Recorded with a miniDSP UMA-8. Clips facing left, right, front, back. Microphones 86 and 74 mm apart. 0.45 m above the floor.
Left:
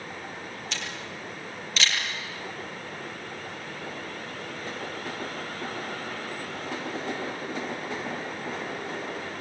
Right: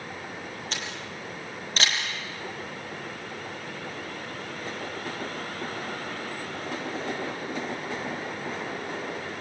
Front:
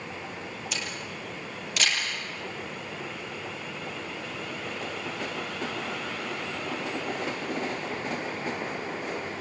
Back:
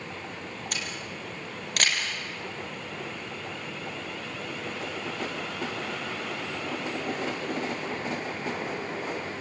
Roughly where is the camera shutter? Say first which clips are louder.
Even, even; behind right.